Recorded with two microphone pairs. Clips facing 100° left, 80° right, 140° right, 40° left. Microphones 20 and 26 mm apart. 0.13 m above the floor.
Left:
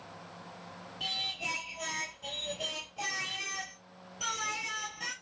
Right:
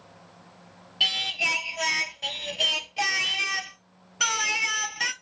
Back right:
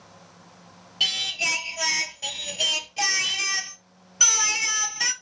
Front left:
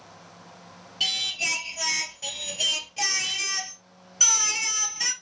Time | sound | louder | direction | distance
1.0 | singing | right 10 dB, back right 2 dB | 65° right | 0.8 m